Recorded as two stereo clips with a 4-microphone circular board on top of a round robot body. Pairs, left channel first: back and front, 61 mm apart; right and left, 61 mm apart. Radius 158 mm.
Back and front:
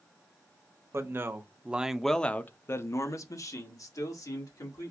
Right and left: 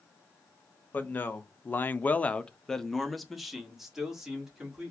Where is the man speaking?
35° right, 0.9 m; by 4.9 s 170° left, 1.8 m.